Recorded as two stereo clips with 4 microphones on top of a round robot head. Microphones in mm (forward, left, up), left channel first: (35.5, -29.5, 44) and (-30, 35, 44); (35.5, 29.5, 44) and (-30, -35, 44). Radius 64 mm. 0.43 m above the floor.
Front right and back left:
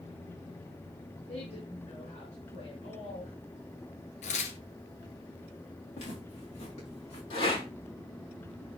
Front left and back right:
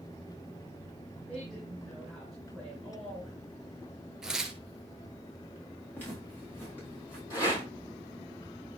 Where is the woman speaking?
40° right, 6 m.